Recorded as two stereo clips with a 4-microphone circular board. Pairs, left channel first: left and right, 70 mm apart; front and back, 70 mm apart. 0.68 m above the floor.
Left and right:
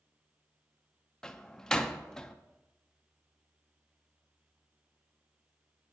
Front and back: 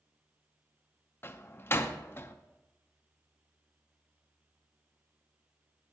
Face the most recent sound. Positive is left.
turn(degrees=15)